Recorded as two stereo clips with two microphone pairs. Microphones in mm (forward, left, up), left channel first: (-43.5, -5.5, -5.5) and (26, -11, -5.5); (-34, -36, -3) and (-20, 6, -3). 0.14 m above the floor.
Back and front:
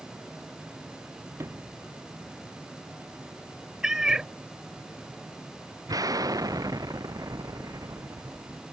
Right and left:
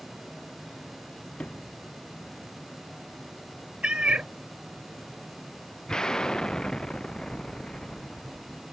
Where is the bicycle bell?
No bicycle bell in this recording.